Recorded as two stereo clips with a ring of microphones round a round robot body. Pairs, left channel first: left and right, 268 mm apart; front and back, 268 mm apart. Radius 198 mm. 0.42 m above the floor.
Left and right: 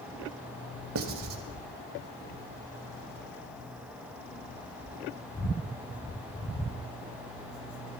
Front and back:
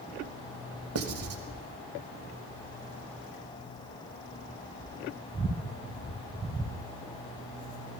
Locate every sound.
0.9 s writing: 135° right, 1.0 m